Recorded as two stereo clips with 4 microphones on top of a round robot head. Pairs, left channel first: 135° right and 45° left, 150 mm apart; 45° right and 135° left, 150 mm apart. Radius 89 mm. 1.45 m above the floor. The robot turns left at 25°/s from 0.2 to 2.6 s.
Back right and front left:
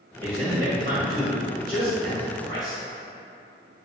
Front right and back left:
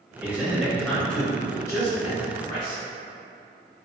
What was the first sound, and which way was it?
A man speaking, 60° left.